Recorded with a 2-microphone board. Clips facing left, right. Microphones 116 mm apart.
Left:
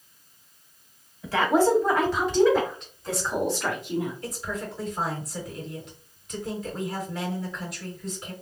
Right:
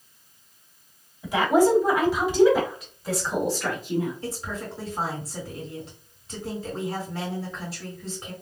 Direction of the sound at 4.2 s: 30° right (ahead or behind).